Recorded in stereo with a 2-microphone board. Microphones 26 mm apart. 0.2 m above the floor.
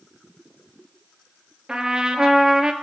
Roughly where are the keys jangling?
I don't hear keys jangling.